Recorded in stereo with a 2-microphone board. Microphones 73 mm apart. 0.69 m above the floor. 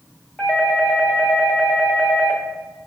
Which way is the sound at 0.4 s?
5° left (ahead or behind).